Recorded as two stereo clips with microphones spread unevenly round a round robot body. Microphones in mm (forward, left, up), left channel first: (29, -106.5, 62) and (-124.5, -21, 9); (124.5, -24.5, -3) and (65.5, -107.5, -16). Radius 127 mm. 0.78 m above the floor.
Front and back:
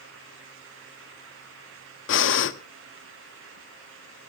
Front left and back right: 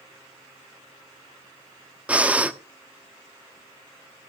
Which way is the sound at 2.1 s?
50° right.